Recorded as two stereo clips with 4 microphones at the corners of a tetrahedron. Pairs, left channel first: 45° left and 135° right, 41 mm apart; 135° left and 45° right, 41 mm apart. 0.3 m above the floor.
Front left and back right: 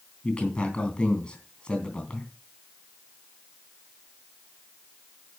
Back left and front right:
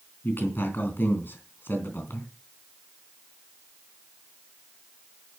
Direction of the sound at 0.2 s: 110° left.